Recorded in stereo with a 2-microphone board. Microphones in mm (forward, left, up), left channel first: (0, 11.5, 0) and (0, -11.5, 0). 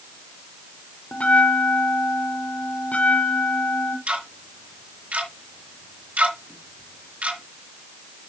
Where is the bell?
75° left (ahead or behind), 1.9 m.